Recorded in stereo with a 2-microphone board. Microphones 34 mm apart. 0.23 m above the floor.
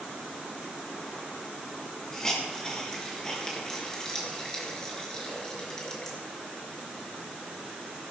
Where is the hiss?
20° left (ahead or behind), 4.5 m.